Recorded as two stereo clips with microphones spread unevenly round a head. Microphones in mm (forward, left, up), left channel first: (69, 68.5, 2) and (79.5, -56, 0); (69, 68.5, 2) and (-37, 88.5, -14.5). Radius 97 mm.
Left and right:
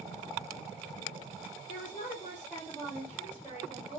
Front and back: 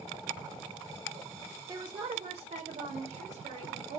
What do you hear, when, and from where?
1.7 s a woman speaking: 110° left, 0.6 m; by 4.0 s 145° right, 1.3 m